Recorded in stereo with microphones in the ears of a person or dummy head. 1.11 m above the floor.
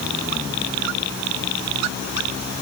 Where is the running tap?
No running tap in this recording.